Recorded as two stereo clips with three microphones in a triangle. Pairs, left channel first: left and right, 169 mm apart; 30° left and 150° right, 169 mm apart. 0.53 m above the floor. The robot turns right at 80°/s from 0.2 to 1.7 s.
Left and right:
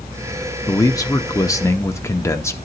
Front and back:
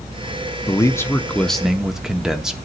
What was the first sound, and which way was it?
A man speaking, 45° left.